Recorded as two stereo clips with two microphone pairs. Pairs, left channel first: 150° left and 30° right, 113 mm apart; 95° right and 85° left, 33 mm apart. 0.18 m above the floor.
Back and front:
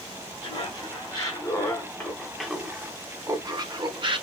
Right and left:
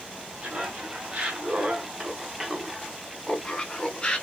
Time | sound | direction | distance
0.4 | laughter | 120° left | 1.8 m